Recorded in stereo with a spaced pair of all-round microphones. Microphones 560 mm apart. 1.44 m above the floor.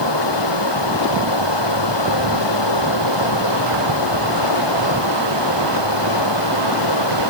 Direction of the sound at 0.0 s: 50° left (ahead or behind).